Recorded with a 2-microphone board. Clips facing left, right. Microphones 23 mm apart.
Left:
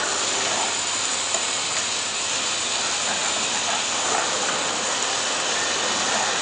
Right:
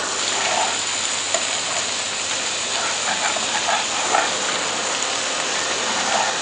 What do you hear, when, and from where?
0.2 s frying: 25° right (ahead or behind)